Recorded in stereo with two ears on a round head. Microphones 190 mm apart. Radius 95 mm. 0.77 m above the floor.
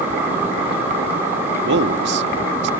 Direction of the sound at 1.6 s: 55° right (ahead or behind).